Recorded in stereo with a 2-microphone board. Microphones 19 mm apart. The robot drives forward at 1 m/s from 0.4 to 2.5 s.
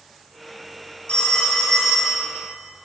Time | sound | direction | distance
1.1 | a phone ringing | 65° left (ahead or behind) | 0.7 m